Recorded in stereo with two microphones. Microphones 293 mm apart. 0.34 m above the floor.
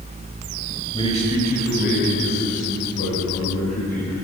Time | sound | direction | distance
0.9 | a man speaking | 15° left (ahead or behind) | 1.7 m